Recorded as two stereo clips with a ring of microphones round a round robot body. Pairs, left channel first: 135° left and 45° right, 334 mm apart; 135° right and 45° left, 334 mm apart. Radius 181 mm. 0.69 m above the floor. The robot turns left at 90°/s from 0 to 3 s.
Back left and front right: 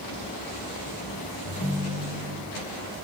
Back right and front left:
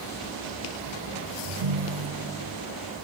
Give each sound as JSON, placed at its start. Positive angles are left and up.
{"t": 1.4, "sound": "a ringtone", "azimuth_deg": 75, "distance_m": 2.0}